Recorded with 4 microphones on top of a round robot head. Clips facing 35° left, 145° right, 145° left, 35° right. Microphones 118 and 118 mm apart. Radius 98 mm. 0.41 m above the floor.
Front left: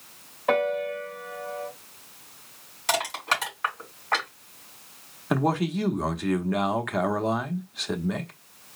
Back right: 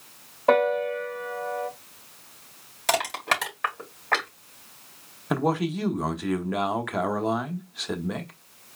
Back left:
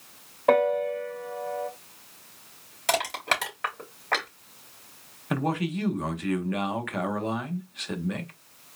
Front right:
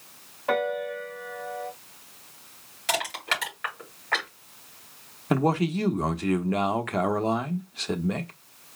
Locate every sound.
0.5 s a piano: 175° left, 2.0 m
2.9 s crushing: 175° right, 3.5 m
5.3 s a man speaking: 60° right, 0.9 m